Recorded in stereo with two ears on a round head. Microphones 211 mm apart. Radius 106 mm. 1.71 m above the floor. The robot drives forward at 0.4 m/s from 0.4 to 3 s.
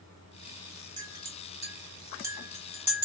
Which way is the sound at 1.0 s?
15° right (ahead or behind).